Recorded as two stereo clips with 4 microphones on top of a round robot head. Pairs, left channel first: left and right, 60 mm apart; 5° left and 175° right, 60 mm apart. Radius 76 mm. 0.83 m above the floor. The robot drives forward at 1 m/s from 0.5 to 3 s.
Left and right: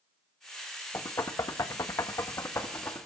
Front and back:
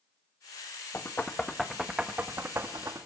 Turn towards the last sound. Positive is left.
turn(degrees=145)